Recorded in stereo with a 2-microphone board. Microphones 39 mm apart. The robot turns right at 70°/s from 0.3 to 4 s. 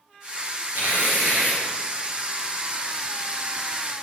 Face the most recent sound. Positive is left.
turn(degrees=125)